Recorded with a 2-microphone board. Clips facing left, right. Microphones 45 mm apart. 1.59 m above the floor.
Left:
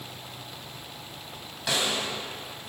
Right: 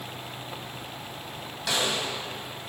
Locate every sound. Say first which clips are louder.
1.7 s a snare drum: even; 5° left (ahead or behind), 2.5 m